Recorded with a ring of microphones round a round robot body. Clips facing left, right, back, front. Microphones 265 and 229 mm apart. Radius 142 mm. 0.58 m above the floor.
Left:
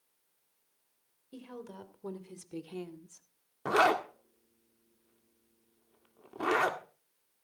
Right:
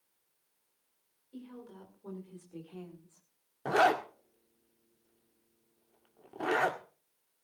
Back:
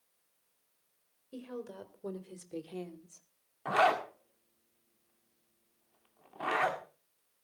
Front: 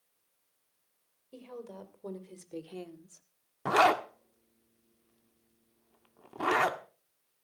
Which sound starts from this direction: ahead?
A zipper, at 3.6 s.